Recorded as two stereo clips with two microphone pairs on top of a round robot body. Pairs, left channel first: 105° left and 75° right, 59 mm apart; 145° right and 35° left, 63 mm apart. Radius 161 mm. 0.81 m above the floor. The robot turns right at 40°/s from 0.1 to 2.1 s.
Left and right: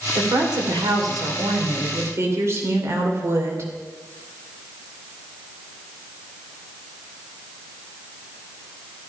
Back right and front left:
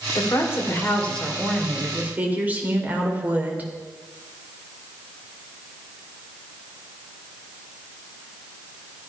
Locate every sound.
0.1 s a woman speaking: 105° right, 2.5 m; by 3.7 s 30° right, 2.5 m